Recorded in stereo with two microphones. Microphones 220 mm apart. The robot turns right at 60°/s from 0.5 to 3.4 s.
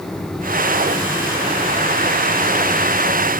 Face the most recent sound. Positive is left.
No sound to turn to.